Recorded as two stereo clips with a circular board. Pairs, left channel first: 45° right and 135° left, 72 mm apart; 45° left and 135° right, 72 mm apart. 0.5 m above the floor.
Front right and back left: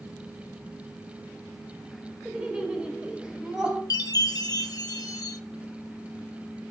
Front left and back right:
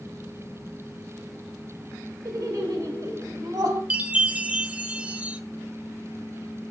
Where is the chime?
65° right, 0.6 m.